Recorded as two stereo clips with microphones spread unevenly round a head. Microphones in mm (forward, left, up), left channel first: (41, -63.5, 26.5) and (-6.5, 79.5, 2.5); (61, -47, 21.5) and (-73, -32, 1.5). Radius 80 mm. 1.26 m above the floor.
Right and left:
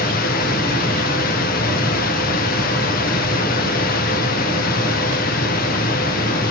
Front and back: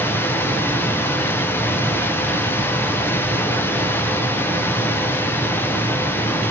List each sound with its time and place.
0.0 s a machine running: 85° right, 0.9 m